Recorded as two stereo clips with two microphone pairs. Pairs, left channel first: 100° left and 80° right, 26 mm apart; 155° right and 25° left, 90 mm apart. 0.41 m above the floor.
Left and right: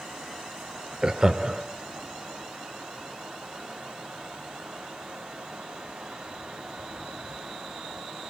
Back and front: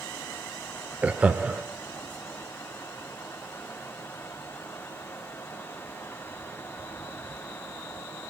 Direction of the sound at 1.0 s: 40° right.